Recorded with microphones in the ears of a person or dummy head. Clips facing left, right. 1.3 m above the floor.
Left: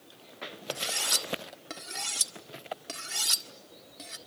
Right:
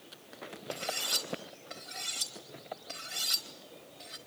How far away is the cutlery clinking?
About 1.6 m.